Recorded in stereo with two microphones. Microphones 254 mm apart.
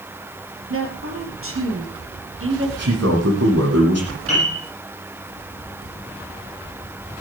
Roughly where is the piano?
Right.